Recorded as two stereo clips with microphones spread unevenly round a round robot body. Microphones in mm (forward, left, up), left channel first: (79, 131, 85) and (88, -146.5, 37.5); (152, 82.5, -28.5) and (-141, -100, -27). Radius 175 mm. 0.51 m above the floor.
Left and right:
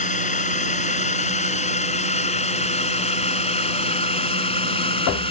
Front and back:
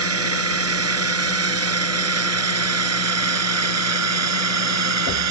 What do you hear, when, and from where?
0.0 s a drone: 160° left; by 5.3 s 165° left